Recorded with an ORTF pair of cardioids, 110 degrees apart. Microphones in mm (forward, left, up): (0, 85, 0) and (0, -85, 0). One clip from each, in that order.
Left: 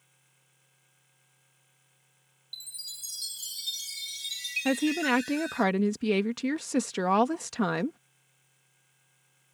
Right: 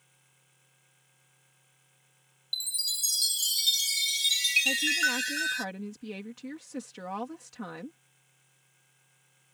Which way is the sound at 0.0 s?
10° right.